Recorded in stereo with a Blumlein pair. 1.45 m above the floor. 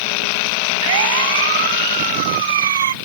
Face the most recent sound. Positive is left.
turn(degrees=-60)